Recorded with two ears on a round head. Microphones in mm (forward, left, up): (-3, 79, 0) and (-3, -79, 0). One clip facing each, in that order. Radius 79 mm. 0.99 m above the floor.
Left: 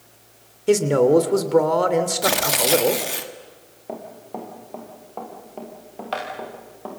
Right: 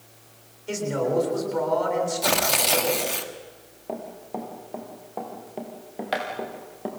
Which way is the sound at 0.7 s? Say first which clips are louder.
Left 10 dB; 65° left (ahead or behind).